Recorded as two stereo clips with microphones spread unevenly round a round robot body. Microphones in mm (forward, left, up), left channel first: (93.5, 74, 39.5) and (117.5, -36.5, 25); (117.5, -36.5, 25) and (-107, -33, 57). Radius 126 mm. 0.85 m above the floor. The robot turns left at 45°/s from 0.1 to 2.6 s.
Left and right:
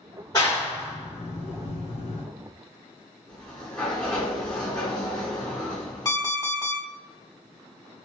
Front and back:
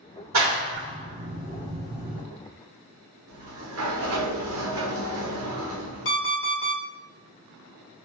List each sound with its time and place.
0.3 s a clap: 175° left, 1.8 m; by 2.2 s 90° left, 1.8 m
3.3 s a sliding door: 170° left, 0.6 m
6.0 s an alarm clock: 45° left, 1.4 m